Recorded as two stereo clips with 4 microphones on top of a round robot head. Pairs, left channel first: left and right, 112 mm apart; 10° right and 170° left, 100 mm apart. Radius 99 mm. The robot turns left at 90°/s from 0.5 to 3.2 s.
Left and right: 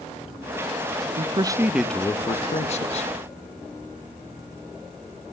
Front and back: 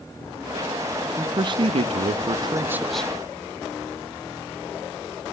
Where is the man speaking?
120° right, 1.0 m; by 3.1 s 65° left, 1.0 m.